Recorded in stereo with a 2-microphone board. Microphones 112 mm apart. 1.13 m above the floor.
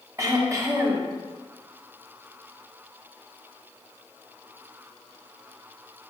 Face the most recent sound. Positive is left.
turn(degrees=-25)  # may be behind; listen again after turning